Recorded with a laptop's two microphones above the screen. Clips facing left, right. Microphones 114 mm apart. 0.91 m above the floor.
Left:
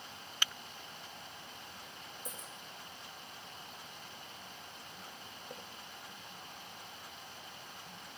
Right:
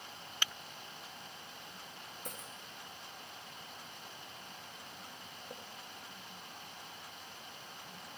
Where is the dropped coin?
60° right (ahead or behind), 9 m.